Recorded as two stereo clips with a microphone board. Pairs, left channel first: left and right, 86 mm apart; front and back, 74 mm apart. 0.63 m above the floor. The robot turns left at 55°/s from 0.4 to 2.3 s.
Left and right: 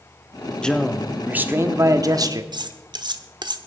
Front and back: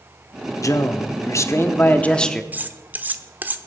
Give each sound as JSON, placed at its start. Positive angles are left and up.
{"t": 0.6, "sound": "a man speaking", "azimuth_deg": 15, "distance_m": 1.1}
{"t": 2.5, "sound": "cutlery clinking", "azimuth_deg": -115, "distance_m": 0.9}